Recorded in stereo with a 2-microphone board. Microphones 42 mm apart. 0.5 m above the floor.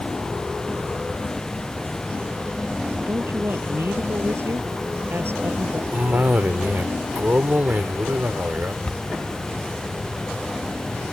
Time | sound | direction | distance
3.1 | a woman speaking | 65° right (ahead or behind) | ?
5.9 | a cough | 50° right (ahead or behind) | ?
8.8 | a cupboard door | 30° left (ahead or behind) | ?